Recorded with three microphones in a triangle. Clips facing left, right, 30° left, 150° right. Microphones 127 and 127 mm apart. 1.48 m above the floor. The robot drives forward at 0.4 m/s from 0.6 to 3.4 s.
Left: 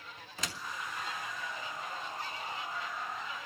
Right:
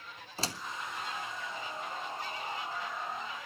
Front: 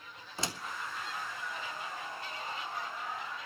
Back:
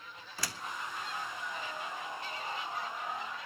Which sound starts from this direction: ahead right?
A door slam, at 0.4 s.